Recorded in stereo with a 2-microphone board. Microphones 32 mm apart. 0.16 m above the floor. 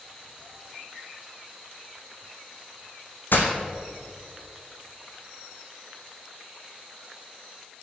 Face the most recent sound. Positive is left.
turn(degrees=80)